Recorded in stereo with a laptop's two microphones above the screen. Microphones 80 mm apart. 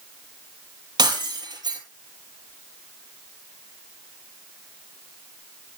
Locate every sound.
1.0 s breaking glass: 60° right (ahead or behind), 4.5 m